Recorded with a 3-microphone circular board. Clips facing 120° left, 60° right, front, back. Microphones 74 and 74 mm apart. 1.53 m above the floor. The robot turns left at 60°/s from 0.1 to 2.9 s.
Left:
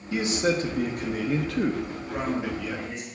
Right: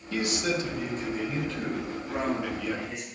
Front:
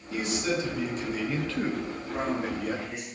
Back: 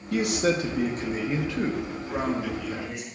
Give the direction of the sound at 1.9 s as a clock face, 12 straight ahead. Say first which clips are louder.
Even, back 2 dB; 4 o'clock.